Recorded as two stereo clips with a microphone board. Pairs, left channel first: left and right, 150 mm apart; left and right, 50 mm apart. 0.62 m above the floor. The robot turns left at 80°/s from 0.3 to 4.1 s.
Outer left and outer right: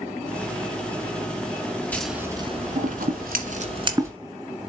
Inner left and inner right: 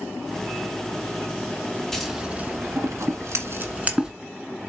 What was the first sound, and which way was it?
Scissors, 10° left (ahead or behind).